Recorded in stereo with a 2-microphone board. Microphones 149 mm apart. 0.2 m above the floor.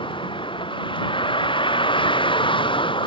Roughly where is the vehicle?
Left.